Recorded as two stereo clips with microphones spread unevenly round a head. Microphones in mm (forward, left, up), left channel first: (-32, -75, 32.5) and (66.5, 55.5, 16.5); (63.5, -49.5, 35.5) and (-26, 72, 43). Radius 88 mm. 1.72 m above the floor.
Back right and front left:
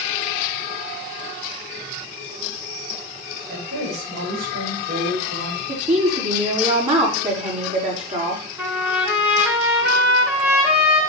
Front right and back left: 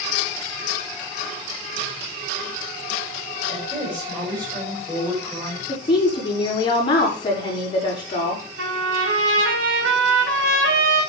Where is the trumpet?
135° left, 3.5 m.